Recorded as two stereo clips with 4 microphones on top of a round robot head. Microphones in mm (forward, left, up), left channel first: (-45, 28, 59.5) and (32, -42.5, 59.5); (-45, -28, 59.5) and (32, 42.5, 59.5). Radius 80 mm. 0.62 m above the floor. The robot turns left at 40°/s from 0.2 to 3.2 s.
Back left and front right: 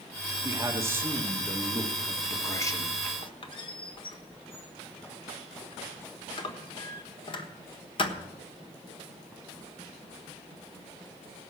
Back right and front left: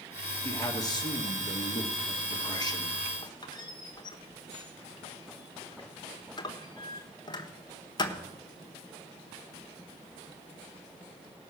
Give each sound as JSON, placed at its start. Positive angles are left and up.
{"t": 0.4, "sound": "a man speaking", "azimuth_deg": -85, "distance_m": 1.7}
{"t": 3.2, "sound": "a squeak", "azimuth_deg": 175, "distance_m": 1.3}